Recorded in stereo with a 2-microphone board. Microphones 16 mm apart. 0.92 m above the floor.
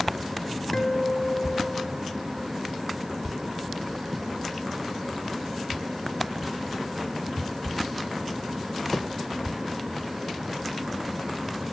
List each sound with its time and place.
0.7 s a guitar: 40° left (ahead or behind), 1.7 m